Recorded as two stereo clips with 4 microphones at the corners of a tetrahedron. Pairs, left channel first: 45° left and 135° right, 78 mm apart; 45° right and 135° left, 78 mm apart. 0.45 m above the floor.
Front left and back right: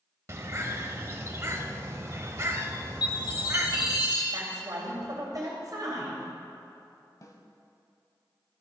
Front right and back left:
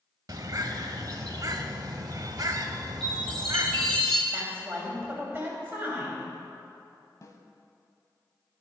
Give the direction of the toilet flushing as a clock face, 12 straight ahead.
I don't hear a toilet flushing.